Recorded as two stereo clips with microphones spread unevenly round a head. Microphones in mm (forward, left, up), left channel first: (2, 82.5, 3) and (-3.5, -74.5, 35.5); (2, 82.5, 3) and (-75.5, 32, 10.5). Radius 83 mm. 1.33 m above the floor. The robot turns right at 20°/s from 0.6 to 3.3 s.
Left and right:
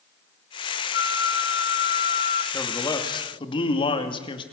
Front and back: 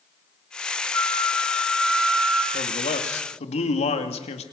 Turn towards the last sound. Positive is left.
turn(degrees=25)